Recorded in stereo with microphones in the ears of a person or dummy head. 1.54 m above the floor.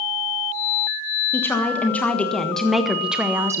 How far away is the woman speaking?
About 1.7 m.